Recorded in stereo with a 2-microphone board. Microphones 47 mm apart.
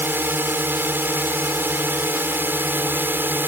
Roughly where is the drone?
Right.